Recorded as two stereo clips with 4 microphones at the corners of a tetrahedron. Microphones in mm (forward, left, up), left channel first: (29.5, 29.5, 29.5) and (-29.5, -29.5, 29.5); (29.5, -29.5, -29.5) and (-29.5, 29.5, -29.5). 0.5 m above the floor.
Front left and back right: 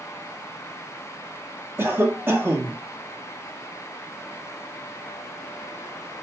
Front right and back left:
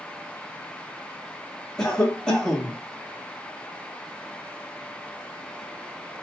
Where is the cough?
115° right, 0.7 m.